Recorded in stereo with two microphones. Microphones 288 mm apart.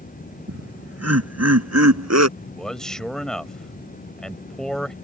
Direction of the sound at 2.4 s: Centre (ahead or behind).